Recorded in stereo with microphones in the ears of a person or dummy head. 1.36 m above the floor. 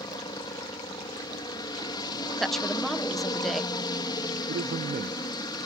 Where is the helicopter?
20° left (ahead or behind).